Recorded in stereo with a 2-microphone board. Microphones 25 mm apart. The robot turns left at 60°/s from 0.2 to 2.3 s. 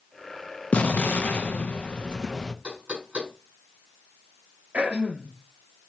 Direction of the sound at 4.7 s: 75° right (ahead or behind).